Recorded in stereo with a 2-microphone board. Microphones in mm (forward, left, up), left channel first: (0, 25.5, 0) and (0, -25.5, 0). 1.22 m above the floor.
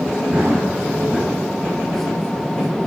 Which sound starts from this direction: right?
Running footsteps, at 0.3 s.